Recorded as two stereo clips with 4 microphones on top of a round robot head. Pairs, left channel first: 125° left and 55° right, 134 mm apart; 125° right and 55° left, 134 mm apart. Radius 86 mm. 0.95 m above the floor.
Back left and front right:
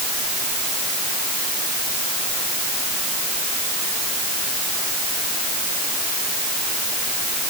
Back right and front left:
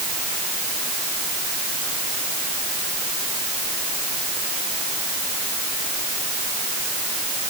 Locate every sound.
Only background noise.